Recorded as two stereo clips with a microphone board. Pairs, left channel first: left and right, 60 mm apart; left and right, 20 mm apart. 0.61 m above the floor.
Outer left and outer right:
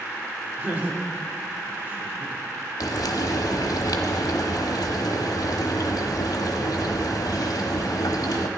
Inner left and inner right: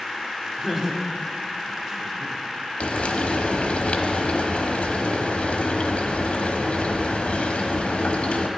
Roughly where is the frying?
Left.